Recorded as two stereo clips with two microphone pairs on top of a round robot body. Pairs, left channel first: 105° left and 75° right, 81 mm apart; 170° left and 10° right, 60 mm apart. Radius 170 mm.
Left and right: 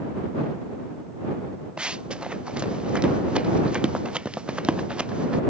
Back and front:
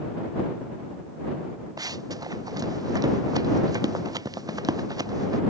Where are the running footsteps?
5° left.